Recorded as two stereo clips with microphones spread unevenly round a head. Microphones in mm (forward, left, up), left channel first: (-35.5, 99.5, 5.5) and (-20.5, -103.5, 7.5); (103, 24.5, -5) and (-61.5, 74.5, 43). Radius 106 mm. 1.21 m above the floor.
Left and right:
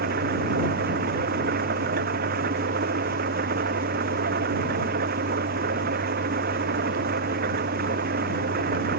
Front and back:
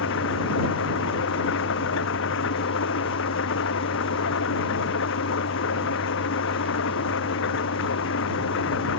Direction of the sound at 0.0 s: 35° right.